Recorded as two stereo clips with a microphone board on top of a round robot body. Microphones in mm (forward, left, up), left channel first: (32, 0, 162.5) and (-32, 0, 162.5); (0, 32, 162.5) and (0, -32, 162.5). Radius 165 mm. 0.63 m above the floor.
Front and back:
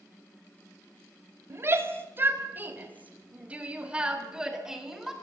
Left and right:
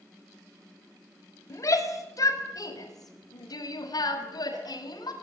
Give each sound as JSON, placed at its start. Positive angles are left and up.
{"t": 1.5, "sound": "a shout", "azimuth_deg": 130, "distance_m": 5.5}